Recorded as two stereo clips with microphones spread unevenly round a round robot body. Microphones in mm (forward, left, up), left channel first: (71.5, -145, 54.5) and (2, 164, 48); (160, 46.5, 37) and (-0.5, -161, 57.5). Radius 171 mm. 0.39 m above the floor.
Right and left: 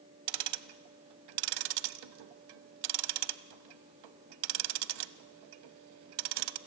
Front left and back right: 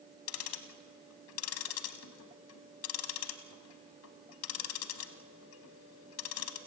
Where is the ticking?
100° left, 0.8 m.